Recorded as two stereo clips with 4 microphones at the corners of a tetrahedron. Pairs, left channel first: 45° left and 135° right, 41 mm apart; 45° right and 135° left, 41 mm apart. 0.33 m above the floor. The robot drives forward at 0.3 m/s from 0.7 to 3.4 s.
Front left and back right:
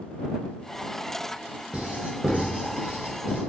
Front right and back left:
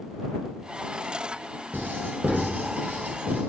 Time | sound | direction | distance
1.7 | writing | 165° left | 1.0 m